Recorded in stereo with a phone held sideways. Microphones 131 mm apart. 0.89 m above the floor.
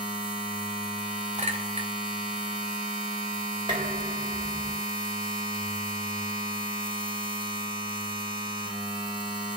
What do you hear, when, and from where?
0.0 s a machine running: 40° left (ahead or behind), 3 m
1.4 s a clink: 50° right (ahead or behind), 2 m
3.7 s dishes clattering: 35° right (ahead or behind), 3 m